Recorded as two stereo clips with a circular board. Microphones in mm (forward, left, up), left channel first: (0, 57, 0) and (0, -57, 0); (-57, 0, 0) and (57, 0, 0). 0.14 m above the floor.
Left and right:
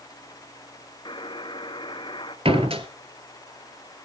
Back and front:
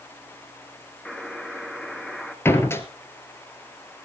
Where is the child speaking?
No child speaking in this recording.